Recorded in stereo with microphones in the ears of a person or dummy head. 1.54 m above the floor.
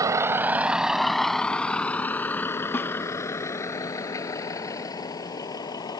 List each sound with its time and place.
0.0 s a vehicle: 15° right (ahead or behind); by 6.0 s 25° left (ahead or behind)
2.7 s a snare drum: 15° left (ahead or behind)